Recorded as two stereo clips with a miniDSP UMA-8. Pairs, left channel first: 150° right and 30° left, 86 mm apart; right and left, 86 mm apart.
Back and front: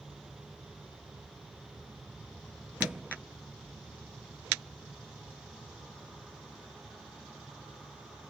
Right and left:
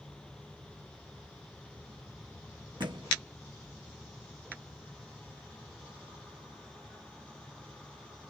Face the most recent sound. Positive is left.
turn(degrees=105)